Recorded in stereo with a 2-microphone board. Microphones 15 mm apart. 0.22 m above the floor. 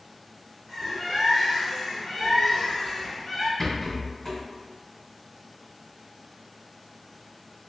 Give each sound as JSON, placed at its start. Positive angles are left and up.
{"t": 0.7, "sound": "a bird", "side_deg": 5, "distance_m": 1.0}
{"t": 3.6, "sound": "a rattle", "side_deg": 25, "distance_m": 1.9}